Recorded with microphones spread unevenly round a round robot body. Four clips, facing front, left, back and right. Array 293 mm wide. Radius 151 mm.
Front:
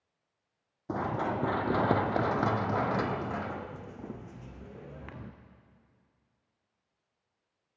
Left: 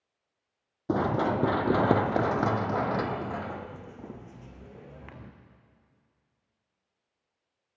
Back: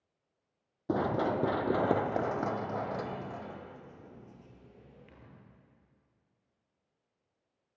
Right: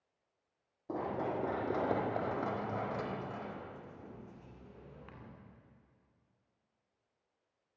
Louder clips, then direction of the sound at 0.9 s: Left 10 dB, back 2 dB; 100° left.